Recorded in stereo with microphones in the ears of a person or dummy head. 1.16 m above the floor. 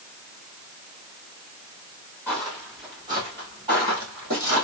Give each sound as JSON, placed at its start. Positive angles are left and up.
{"t": 2.3, "sound": "footsteps", "side_deg": -20, "distance_m": 1.7}